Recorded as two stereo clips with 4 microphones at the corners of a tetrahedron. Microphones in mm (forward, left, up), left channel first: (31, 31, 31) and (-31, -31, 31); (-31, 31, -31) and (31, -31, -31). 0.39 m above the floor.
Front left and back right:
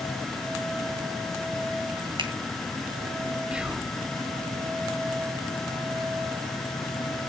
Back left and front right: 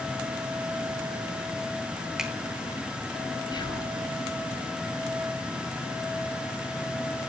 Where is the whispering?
150° left, 1.6 m.